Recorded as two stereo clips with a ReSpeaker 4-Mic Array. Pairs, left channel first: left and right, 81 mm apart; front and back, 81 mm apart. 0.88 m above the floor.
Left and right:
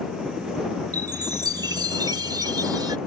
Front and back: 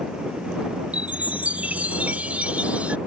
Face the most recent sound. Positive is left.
turn(degrees=-110)